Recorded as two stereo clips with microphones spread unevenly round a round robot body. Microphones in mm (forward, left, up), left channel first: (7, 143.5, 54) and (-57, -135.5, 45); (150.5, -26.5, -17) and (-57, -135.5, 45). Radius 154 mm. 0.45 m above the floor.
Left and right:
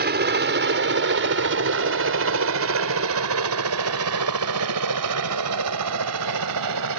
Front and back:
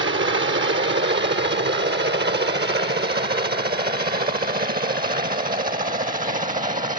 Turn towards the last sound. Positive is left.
turn(degrees=-90)